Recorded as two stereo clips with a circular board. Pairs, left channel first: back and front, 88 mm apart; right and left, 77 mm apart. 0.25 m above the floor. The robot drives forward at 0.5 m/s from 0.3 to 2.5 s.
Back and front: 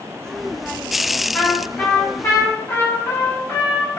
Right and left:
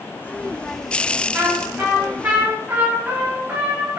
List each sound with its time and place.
1.3 s a trumpet: 115° left, 1.5 m; by 4.0 s 145° left, 1.7 m